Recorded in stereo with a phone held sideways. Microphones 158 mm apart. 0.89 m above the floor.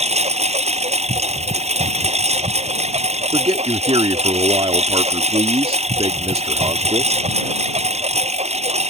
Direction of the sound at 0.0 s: 45° right (ahead or behind).